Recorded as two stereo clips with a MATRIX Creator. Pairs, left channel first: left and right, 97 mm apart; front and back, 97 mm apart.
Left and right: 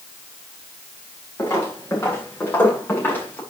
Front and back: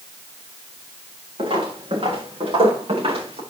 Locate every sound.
1.4 s footsteps: 155° left, 7.5 m; by 3.4 s 165° left, 7.5 m